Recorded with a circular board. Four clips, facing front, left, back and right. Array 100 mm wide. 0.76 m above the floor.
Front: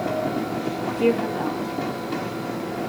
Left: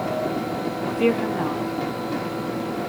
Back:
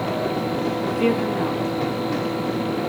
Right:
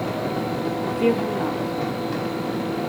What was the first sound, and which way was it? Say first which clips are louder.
A woman speaking: even, front 1 dB; 105° left.